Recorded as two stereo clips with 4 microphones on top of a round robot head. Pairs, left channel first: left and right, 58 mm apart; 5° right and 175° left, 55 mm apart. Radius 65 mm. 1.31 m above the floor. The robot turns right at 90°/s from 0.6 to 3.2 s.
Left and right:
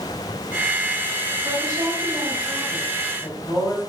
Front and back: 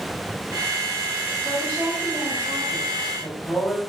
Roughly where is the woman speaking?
Behind right.